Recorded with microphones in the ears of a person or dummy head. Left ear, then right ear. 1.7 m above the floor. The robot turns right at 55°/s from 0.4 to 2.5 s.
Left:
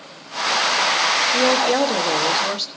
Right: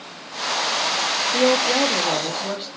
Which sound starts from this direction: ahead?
A woman speaking, at 1.3 s.